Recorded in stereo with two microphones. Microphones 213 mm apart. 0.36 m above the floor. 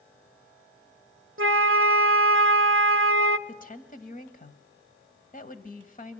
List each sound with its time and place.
1.4 s a flute: 70° right (ahead or behind), 0.6 m
3.5 s a woman speaking: 40° left (ahead or behind), 1.8 m